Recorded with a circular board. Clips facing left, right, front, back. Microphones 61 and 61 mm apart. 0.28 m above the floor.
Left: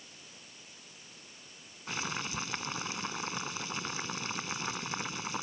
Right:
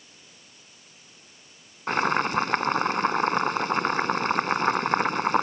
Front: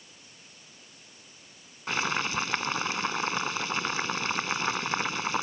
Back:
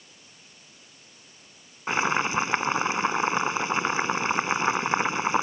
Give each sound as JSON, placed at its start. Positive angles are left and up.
{"t": 1.9, "sound": "boiling", "azimuth_deg": -115}